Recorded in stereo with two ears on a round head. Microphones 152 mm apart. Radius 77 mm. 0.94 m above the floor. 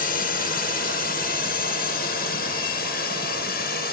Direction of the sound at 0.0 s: 55° left (ahead or behind).